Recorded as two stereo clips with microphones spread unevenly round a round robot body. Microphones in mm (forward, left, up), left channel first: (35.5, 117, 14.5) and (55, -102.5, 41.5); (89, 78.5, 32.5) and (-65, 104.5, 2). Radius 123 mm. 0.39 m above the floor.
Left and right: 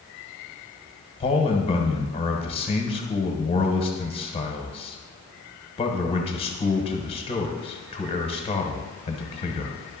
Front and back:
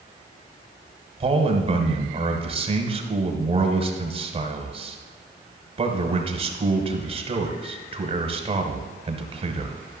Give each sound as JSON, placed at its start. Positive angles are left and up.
{"t": 1.2, "sound": "a man speaking", "azimuth_deg": 145, "distance_m": 1.2}